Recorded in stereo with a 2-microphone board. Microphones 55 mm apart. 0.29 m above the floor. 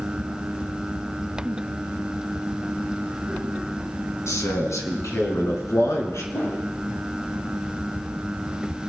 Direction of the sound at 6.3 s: 65° left (ahead or behind).